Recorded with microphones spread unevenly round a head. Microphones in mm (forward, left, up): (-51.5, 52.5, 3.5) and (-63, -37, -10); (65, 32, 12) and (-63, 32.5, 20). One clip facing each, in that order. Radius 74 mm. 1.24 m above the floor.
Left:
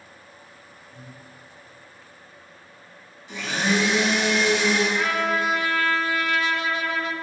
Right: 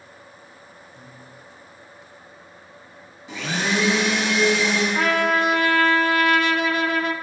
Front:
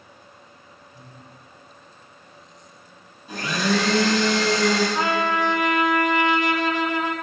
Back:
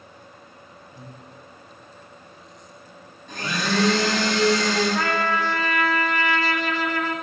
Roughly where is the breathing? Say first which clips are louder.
Even, back 5 dB; behind left.